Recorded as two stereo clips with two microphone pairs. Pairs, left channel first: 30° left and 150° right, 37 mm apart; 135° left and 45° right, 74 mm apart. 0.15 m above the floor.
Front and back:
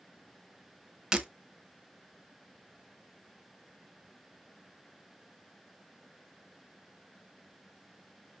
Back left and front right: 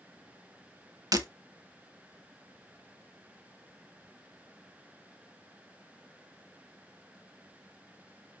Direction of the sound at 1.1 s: 75° right.